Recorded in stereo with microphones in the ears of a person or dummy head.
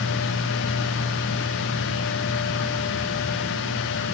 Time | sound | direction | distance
0.0 | a fan | 60° left (ahead or behind) | 1.3 m